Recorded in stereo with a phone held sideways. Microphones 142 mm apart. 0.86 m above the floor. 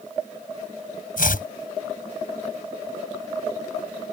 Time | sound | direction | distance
1.2 | chopping | 75° left (ahead or behind) | ?